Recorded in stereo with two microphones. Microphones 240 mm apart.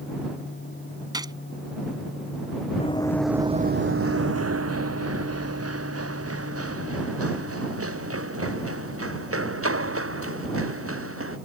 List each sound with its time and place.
1.1 s a gunshot: 15° right (ahead or behind)
2.8 s running footsteps: 25° left (ahead or behind); by 11.4 s 65° right (ahead or behind)